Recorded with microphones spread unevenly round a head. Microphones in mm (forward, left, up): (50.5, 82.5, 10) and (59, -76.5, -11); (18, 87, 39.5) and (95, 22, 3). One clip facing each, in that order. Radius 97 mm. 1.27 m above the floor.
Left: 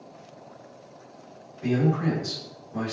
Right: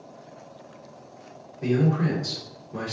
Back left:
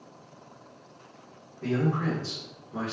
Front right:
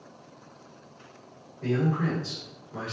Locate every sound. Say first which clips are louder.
1.6 s a man speaking: right 1 dB, front right 1 dB; 140° right, 3.5 m